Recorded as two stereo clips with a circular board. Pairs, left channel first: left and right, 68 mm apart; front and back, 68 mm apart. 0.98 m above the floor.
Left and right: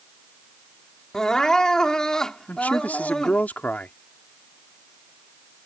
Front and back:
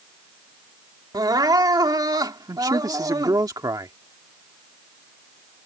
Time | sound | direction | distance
1.1 | crying | 170° left | ?
2.5 | a man speaking | 155° left | ?